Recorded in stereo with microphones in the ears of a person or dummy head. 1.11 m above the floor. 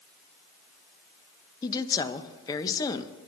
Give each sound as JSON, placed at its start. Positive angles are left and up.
{"t": 1.6, "sound": "a woman speaking", "side_deg": 20, "distance_m": 0.7}